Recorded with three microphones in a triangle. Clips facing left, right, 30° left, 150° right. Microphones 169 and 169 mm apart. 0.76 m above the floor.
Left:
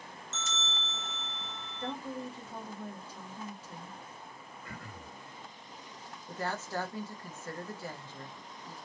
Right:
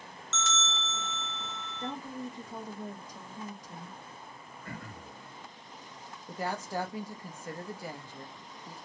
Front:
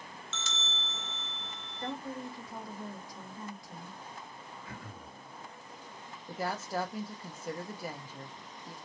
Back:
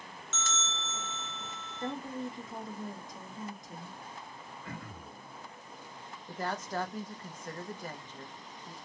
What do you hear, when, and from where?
0.3 s a bell: 105° right, 0.6 m
1.8 s a woman speaking: 135° right, 0.9 m
4.6 s throat clearing: 120° right, 1.3 m
6.3 s a woman speaking: 40° right, 0.6 m